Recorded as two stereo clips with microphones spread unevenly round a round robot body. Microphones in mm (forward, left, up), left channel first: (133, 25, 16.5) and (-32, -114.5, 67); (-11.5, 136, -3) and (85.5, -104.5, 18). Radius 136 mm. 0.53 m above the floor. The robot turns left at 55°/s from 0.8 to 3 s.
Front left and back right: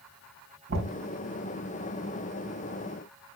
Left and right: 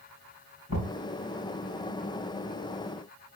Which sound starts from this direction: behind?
Knocking, at 0.7 s.